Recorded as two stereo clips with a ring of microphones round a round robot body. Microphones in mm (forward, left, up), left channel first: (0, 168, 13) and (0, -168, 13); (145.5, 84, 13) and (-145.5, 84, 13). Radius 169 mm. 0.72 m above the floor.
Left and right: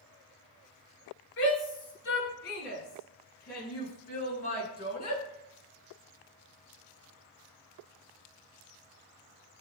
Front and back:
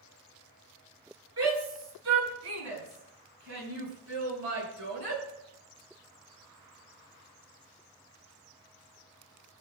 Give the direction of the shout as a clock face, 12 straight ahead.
7 o'clock.